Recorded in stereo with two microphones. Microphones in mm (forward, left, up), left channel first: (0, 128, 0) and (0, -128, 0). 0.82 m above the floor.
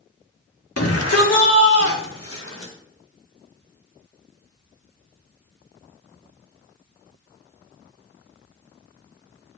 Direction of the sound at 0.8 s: 75° left (ahead or behind).